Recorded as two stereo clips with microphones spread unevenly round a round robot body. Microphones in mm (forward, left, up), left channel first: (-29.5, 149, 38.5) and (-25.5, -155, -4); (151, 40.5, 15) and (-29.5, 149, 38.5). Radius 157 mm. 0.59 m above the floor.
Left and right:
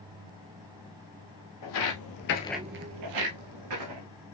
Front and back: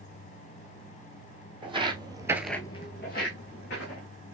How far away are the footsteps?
About 1.6 m.